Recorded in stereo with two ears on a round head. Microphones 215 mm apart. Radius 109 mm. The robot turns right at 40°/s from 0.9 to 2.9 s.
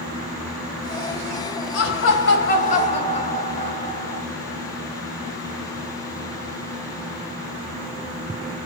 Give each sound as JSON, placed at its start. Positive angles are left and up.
{"t": 1.7, "sound": "laughter", "azimuth_deg": 105, "distance_m": 3.5}